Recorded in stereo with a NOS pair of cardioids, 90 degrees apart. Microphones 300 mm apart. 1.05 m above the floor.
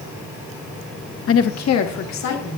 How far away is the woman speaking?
About 0.8 m.